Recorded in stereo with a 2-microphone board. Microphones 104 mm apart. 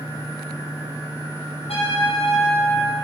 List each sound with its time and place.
1.7 s a trumpet: 75° left (ahead or behind), 5.5 m